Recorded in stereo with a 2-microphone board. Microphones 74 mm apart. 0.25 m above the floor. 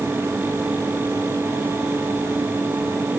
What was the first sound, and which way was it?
Only background noise.